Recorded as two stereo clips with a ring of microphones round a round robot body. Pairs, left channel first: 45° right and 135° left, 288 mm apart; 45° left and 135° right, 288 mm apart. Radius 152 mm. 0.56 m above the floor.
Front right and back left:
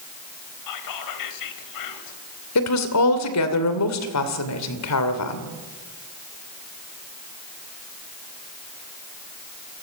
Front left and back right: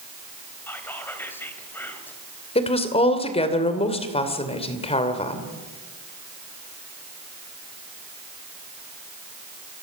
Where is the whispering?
40° right, 3 m.